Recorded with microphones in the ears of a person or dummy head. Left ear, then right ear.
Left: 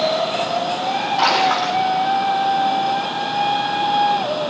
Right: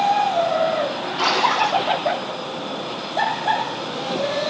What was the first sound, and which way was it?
A splash, 20° left (ahead or behind).